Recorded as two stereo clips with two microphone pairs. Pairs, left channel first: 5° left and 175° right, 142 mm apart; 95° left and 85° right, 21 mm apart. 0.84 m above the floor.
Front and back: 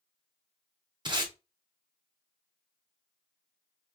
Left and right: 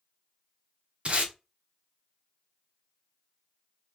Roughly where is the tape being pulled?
Behind right.